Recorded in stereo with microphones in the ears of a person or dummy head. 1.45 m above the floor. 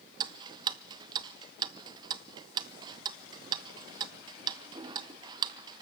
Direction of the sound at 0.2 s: 25° right (ahead or behind).